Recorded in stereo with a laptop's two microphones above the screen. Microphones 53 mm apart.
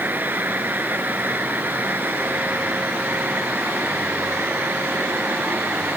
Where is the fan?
35° right (ahead or behind).